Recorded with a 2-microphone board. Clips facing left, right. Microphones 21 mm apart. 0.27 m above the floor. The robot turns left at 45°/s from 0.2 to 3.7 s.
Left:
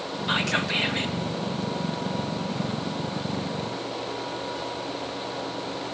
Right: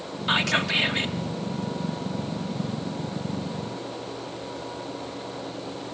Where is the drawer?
No drawer in this recording.